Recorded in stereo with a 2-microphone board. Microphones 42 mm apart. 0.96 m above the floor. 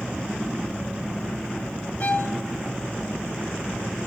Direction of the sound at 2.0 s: 35° left (ahead or behind).